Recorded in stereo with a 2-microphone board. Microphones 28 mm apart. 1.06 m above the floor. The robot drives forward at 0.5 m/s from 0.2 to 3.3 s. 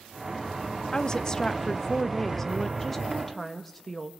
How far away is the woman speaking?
About 0.6 m.